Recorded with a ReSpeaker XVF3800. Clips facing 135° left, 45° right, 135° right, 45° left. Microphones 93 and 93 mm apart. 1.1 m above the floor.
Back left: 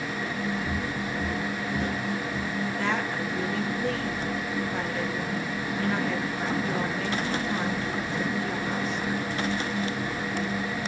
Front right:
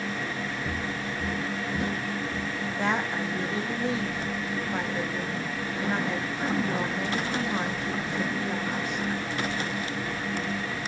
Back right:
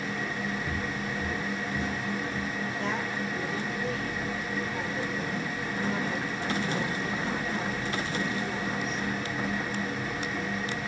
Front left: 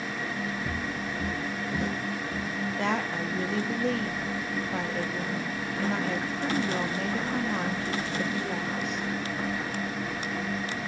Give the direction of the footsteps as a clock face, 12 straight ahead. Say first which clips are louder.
Back left 2 dB, even; 10 o'clock.